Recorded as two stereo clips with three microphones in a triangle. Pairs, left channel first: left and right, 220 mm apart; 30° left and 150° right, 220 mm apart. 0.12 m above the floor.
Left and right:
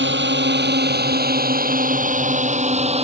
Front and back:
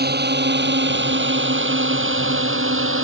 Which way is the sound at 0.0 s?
115° right.